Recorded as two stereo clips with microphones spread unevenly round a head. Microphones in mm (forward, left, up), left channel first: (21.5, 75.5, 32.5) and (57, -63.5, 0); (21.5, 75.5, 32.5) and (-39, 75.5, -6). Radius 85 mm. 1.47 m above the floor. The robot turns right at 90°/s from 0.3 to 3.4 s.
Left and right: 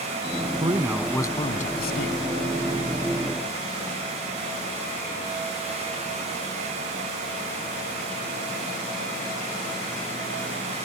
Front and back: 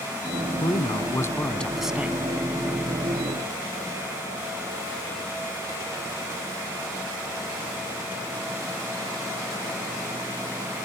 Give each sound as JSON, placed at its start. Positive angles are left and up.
{"t": 0.6, "sound": "a man speaking", "azimuth_deg": -20}